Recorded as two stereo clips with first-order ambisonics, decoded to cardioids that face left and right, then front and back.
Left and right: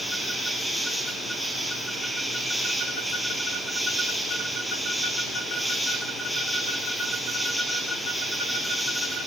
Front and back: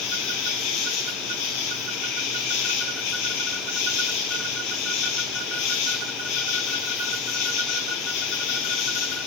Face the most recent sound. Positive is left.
turn(degrees=0)